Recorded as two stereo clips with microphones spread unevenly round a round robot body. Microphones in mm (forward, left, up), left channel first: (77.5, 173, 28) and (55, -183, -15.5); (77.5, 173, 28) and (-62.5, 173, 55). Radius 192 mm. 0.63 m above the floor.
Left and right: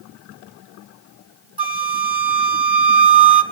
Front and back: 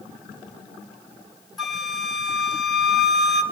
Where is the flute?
60° right, 1.0 m.